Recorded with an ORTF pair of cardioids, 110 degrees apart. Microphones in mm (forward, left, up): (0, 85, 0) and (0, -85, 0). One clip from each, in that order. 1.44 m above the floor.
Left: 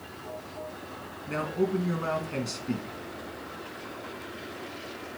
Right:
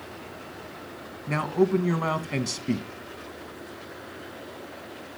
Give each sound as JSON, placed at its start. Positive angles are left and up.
{"t": 1.3, "sound": "a man speaking", "azimuth_deg": -45, "distance_m": 1.8}